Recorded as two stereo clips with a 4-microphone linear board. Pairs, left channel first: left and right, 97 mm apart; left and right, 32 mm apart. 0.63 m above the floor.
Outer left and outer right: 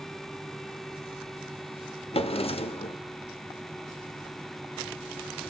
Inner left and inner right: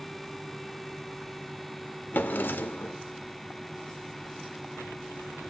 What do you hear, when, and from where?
2.1 s a drawer: 80° left, 0.8 m